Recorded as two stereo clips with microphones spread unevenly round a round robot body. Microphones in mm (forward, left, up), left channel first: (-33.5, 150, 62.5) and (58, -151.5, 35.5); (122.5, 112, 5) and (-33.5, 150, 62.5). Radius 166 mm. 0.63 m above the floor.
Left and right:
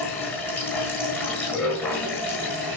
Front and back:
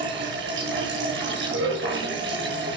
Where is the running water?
170° right, 7 m.